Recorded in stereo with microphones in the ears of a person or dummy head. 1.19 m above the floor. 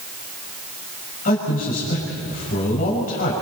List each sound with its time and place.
1.2 s a man speaking: 40° left (ahead or behind), 6 m